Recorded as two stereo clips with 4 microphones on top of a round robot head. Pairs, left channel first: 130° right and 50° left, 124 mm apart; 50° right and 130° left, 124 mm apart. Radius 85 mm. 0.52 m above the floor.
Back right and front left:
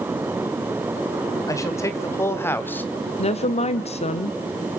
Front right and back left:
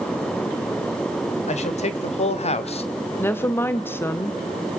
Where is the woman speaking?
120° right, 1.6 m.